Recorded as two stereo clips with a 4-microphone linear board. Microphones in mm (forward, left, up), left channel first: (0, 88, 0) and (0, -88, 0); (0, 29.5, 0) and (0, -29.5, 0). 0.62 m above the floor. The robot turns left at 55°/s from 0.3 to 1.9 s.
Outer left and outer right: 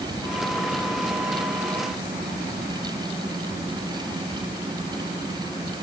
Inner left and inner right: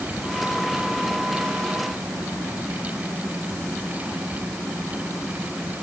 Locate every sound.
Only background noise.